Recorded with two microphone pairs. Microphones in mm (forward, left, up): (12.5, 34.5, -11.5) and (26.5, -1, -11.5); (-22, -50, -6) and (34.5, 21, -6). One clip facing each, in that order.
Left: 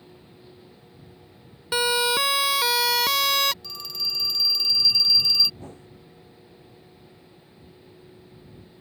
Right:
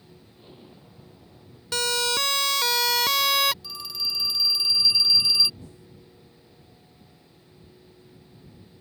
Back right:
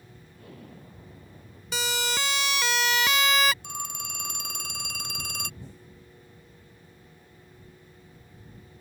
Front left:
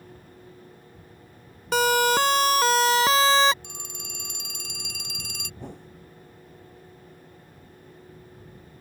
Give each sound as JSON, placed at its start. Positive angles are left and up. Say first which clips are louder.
{"t": 0.3, "sound": "an explosion", "louder": "even, back right 1 dB", "azimuth_deg": -120}
{"t": 1.7, "sound": "a siren", "louder": "left 3 dB, front left 11 dB", "azimuth_deg": 45}
{"t": 3.6, "sound": "a phone ringing", "louder": "even, back right 6 dB", "azimuth_deg": -155}
{"t": 5.6, "sound": "a whoosh", "louder": "left 5 dB, front left 7 dB", "azimuth_deg": 70}